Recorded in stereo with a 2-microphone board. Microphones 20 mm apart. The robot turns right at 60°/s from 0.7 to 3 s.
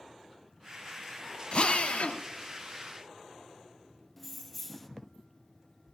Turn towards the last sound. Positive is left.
turn(degrees=5)  # may be behind; listen again after turning